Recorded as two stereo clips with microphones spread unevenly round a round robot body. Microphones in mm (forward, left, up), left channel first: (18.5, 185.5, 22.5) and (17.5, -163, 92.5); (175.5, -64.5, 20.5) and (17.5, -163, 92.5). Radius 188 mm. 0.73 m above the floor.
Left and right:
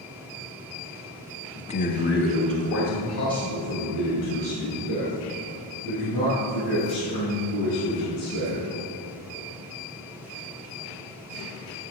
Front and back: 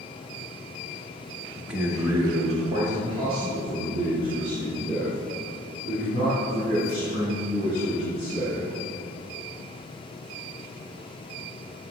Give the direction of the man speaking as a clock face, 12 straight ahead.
10 o'clock.